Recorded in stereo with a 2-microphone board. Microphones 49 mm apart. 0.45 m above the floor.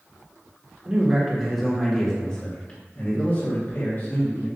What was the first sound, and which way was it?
A man speaking, 20° right (ahead or behind).